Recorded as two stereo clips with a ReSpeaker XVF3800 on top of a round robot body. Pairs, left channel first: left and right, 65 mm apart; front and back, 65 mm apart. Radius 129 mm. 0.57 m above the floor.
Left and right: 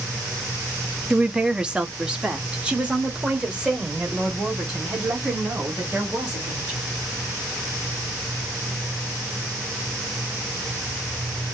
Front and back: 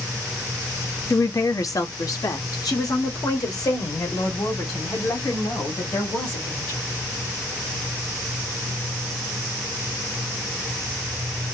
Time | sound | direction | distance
1.1 | a woman speaking | 15° right | 1.0 m